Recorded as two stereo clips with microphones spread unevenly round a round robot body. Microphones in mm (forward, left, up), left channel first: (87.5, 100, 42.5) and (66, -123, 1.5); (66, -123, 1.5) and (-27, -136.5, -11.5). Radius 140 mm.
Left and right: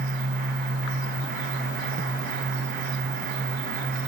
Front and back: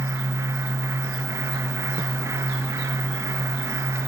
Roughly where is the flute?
I don't hear a flute.